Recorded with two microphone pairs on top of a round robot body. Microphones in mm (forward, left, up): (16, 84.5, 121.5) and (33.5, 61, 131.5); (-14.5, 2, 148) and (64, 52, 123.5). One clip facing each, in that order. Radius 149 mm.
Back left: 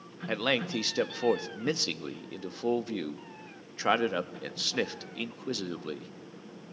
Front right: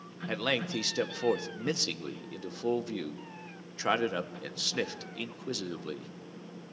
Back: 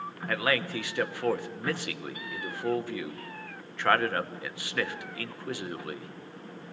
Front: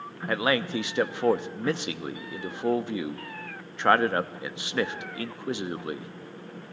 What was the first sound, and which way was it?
A man speaking, 75° left.